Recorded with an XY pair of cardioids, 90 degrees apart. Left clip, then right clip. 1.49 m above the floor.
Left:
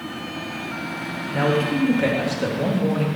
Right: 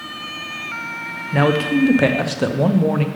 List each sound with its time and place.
1.3 s a man speaking: 60° right, 0.7 m